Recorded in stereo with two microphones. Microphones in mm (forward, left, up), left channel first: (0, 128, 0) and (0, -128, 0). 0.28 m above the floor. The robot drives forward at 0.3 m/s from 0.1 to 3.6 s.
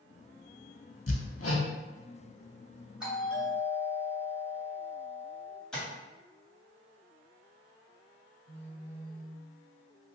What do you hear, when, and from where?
1.1 s hammering: 60° left (ahead or behind), 0.6 m; by 1.7 s 65° left (ahead or behind), 0.6 m
3.0 s a doorbell: 5° right (ahead or behind), 1.9 m
5.7 s tapping: 5° left (ahead or behind), 1.7 m
8.5 s a phone buzzing: 20° left (ahead or behind), 0.5 m